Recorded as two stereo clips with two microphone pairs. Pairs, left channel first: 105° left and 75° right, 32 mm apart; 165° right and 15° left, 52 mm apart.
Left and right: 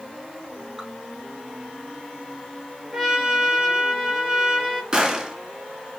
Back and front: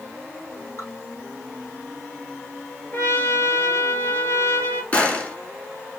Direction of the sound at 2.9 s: 140° right.